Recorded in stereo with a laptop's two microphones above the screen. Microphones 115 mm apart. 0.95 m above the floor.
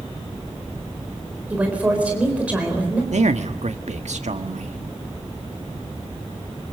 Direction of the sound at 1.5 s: 10° right (ahead or behind).